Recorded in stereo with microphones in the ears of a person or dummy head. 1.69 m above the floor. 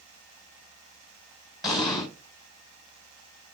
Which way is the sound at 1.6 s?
25° left (ahead or behind).